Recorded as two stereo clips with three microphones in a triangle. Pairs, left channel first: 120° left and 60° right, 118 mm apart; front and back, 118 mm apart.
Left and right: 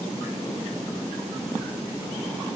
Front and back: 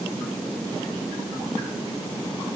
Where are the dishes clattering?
No dishes clattering in this recording.